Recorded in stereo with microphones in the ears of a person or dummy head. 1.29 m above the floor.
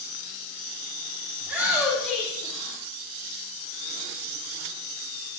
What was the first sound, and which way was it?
A shout, 15° right (ahead or behind).